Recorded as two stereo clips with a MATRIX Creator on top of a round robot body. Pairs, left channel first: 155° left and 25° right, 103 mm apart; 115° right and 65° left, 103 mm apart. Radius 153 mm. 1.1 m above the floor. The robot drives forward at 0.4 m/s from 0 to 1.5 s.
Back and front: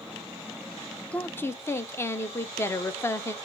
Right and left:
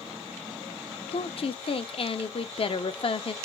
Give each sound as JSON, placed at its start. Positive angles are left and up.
{"t": 1.1, "sound": "a woman speaking", "azimuth_deg": -125, "distance_m": 0.6}